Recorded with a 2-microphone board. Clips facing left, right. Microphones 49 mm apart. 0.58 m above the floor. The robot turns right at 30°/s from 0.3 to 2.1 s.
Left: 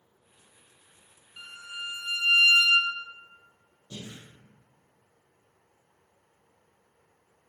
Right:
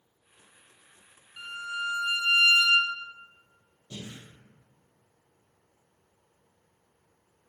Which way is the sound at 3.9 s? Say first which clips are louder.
Even; 20° right (ahead or behind).